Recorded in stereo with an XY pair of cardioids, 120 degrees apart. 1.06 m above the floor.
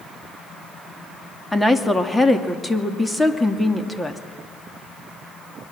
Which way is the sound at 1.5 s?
5° left.